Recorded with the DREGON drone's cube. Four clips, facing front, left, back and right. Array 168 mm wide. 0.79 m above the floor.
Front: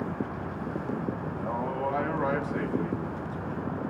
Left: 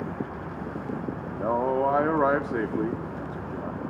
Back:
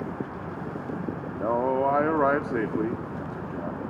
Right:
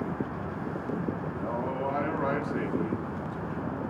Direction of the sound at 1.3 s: 140° left.